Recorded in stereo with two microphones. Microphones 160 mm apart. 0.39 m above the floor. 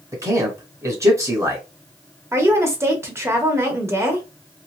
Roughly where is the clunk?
I don't hear a clunk.